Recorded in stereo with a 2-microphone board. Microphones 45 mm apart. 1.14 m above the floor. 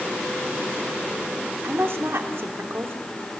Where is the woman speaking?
65° right (ahead or behind), 3 m.